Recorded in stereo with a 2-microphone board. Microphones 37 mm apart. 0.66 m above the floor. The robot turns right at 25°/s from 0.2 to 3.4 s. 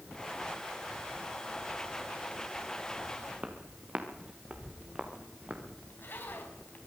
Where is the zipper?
60° left (ahead or behind), 4 m.